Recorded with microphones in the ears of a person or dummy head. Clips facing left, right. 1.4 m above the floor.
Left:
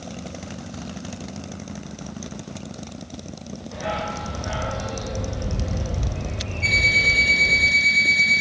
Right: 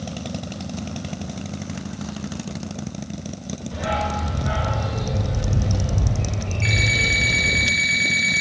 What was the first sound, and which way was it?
A dog barking, 5° right (ahead or behind).